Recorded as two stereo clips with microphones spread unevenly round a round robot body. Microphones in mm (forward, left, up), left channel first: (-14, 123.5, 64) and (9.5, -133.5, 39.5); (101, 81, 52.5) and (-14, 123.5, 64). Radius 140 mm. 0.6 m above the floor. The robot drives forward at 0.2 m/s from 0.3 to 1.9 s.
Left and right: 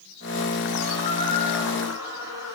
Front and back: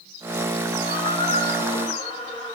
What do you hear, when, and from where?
0.8 s a squeak: 160° right, 2.5 m; by 2.6 s 165° right, 2.5 m